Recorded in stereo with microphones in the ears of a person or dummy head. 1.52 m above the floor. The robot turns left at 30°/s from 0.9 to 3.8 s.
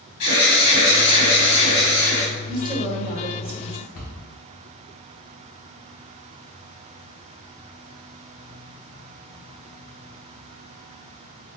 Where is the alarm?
55° left, 1.9 m; by 2.3 s 15° left, 1.9 m.